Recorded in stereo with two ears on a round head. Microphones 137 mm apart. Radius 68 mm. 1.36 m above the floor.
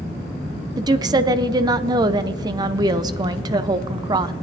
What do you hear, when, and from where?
0.8 s a woman speaking: 25° right (ahead or behind), 0.5 m